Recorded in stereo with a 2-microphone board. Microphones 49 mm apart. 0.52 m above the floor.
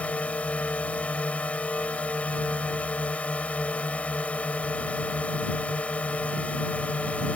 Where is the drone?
30° left (ahead or behind).